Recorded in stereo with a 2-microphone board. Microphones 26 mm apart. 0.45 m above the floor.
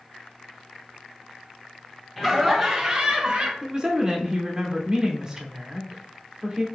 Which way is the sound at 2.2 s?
15° left (ahead or behind).